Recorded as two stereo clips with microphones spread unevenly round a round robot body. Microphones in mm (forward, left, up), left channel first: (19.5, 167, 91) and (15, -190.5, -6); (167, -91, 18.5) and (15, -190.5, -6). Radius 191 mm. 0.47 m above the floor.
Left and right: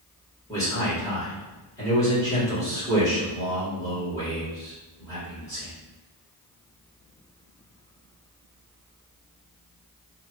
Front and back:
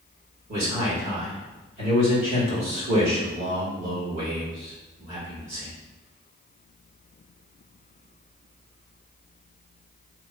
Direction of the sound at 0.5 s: Straight behind.